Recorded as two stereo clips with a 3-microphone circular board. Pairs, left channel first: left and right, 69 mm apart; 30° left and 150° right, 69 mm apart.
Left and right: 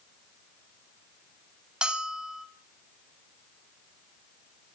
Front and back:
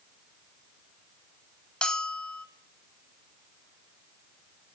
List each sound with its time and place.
1.8 s a bell: 25° right, 1.2 m